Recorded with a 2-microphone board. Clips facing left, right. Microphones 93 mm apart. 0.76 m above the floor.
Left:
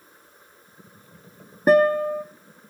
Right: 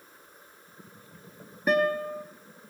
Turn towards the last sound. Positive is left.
turn(degrees=35)  # may be behind; listen again after turning